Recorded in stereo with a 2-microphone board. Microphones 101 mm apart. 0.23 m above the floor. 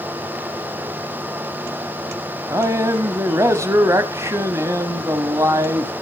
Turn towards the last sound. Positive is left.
turn(degrees=-30)  # may be behind; listen again after turning